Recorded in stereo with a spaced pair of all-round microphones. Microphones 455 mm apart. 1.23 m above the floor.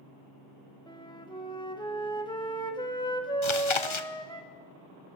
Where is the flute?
10° left (ahead or behind), 1.1 m.